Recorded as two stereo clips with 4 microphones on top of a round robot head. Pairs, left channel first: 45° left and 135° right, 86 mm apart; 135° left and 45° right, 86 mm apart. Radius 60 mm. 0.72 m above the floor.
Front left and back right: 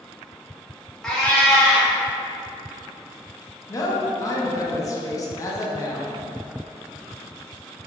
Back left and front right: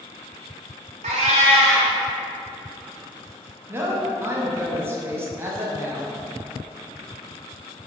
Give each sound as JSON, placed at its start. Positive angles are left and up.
{"t": 1.0, "sound": "a cat meowing", "azimuth_deg": -40, "distance_m": 0.5}
{"t": 3.7, "sound": "a woman speaking", "azimuth_deg": 10, "distance_m": 0.7}